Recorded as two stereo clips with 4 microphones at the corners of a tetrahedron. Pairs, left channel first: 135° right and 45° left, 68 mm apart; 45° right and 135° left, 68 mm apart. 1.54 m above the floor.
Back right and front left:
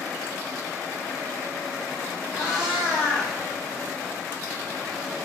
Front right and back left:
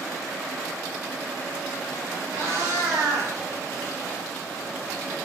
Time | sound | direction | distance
2.3 | a cat meowing | 130° left | 1.3 m